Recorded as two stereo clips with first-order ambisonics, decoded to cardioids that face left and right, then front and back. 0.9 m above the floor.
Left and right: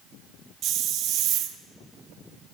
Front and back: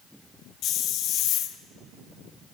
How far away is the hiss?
About 0.7 m.